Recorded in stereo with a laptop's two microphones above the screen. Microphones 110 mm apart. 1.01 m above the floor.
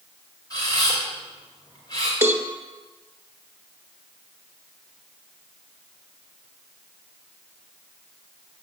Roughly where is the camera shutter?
Left.